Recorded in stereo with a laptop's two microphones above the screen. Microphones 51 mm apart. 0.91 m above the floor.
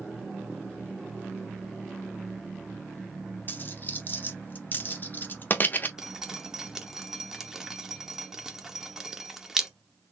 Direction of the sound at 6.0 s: 10° right (ahead or behind).